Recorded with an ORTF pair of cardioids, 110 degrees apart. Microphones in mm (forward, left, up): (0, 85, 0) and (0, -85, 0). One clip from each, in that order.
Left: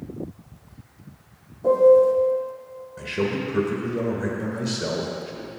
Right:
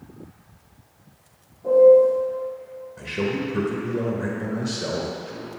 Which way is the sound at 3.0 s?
5° left.